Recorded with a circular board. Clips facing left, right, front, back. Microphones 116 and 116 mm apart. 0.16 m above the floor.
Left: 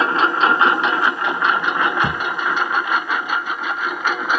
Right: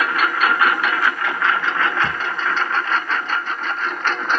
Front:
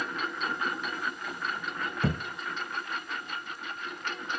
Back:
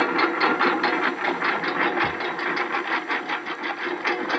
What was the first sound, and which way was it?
A lawn mower, 155° left.